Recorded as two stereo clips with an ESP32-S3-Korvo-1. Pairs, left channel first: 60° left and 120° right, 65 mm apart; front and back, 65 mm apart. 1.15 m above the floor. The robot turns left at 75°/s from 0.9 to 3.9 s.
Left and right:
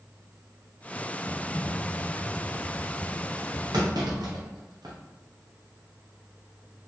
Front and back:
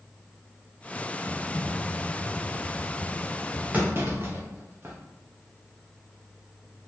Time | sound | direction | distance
1.2 | typing on a keyboard | 115° left | 1.1 m
3.7 | a clunk | 115° right | 0.7 m